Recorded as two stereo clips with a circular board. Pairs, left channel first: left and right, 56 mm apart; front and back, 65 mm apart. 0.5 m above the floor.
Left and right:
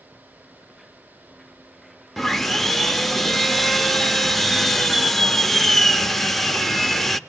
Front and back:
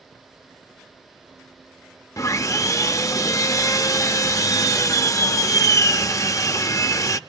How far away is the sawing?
About 0.6 m.